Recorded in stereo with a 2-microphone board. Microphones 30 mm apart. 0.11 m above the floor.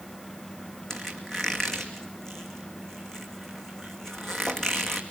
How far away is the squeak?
About 2 m.